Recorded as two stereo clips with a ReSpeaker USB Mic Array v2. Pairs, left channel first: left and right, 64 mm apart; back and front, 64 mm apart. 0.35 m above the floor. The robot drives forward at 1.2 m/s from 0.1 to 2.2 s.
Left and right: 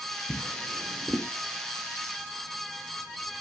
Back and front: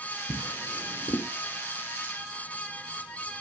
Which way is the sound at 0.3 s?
155° left.